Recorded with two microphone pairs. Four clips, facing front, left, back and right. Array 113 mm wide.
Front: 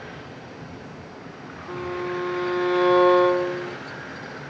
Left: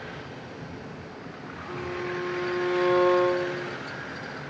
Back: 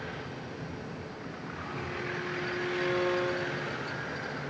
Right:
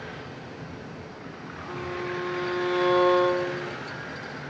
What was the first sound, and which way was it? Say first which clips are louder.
A violin: even, front 10 dB; 20° right.